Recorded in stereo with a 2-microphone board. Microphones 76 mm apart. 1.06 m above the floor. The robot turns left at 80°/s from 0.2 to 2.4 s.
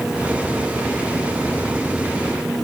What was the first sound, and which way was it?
Only background noise.